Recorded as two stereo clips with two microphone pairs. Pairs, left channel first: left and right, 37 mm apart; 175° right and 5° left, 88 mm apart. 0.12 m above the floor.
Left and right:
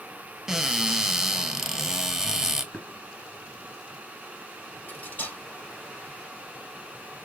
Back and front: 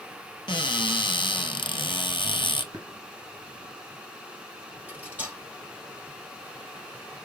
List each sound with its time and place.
0.5 s a cupboard door: 165° right, 1.0 m
2.7 s tapping: 35° left, 1.8 m
4.9 s cutlery clinking: 75° left, 2.5 m